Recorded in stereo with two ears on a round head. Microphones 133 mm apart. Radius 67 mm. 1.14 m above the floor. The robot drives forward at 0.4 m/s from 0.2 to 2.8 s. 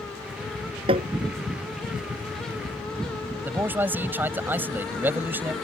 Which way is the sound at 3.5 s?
15° right (ahead or behind).